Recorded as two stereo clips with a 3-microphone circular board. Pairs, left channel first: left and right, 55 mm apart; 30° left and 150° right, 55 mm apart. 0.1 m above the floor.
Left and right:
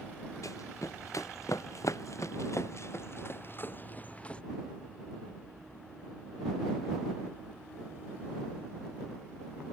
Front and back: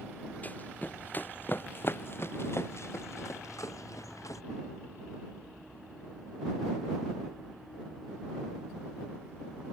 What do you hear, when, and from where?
0.4 s running footsteps: 85° left; by 4.4 s 20° left